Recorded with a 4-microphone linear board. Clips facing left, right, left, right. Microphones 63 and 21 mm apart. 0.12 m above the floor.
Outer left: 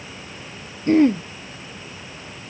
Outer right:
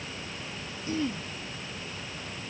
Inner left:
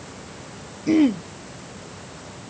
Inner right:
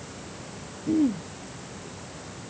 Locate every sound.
0.9 s throat clearing: 60° left (ahead or behind)